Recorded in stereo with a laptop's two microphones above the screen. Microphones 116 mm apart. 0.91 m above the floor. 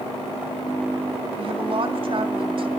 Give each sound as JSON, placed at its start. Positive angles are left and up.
{"t": 1.4, "sound": "a woman speaking", "side_deg": -50, "distance_m": 1.9}